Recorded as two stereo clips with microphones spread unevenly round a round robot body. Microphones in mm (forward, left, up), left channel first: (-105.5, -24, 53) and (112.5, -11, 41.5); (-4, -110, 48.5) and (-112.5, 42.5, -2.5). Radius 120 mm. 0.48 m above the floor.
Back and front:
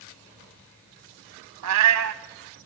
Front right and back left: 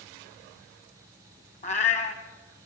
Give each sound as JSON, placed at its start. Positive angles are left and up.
{"t": 1.6, "sound": "a cat meowing", "azimuth_deg": 5, "distance_m": 0.9}